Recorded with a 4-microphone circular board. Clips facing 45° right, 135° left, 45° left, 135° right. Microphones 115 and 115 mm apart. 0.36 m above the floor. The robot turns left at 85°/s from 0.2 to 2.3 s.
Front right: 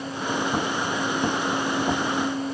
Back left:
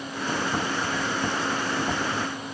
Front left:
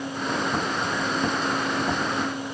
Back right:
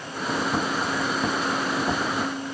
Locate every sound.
Only background noise.